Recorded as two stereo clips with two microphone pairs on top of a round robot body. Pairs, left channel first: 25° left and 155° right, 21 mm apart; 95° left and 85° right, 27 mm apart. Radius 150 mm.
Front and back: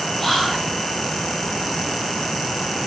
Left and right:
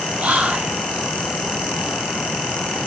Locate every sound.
0.2 s whispering: 55° right, 3.5 m